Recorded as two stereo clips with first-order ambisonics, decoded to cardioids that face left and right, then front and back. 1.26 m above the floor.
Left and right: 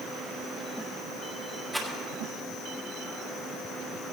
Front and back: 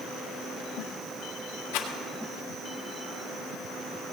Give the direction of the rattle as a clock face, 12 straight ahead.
12 o'clock.